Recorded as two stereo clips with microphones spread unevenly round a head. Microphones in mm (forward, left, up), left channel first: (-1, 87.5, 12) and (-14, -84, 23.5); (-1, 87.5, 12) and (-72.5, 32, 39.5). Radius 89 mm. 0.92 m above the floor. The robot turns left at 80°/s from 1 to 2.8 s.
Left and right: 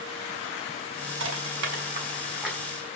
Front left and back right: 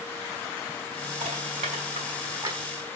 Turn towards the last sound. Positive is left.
turn(degrees=150)